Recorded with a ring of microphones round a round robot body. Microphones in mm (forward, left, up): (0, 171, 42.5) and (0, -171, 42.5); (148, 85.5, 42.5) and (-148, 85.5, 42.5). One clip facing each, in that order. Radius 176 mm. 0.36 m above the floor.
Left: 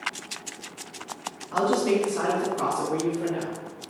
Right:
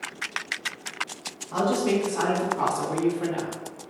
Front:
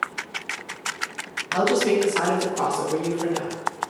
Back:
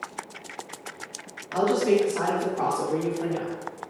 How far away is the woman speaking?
About 1.3 m.